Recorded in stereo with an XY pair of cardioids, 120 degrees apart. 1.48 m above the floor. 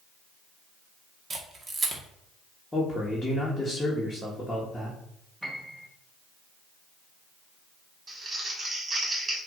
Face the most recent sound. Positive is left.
turn(degrees=-30)